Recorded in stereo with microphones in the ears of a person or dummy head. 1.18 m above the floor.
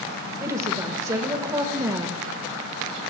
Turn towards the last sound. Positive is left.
turn(degrees=-15)  # may be behind; listen again after turning